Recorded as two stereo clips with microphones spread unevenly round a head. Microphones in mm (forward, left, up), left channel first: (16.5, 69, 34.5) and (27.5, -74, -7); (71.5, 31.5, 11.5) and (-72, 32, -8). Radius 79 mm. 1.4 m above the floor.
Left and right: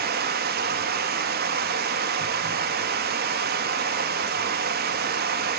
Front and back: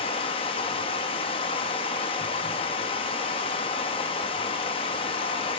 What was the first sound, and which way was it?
Running water, 60° right.